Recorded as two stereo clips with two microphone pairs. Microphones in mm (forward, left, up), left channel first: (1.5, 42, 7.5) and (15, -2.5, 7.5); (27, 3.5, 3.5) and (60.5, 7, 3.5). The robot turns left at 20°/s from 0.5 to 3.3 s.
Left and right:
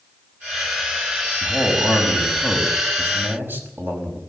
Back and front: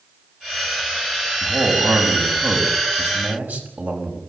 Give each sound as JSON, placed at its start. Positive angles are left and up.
{"t": 1.4, "sound": "a man speaking", "azimuth_deg": 10, "distance_m": 5.5}